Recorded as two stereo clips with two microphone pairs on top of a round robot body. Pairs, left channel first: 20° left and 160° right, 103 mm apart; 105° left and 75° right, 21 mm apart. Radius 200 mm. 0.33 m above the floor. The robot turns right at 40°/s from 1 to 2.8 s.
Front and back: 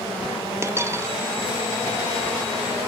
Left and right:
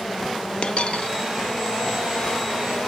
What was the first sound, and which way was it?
A dropped coin, 140° left.